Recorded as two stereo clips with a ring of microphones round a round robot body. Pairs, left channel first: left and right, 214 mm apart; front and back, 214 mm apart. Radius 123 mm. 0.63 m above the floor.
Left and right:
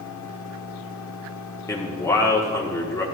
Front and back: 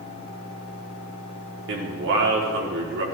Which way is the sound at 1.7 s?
165° left.